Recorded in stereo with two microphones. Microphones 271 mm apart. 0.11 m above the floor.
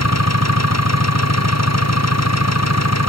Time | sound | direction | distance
0.0 | an engine running | 70° left (ahead or behind) | ?